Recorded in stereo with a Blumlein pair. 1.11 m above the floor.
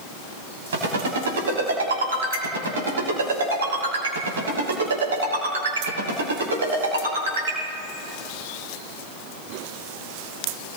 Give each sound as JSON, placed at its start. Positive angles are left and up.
{"t": 0.7, "sound": "a ringtone", "azimuth_deg": -65, "distance_m": 6.5}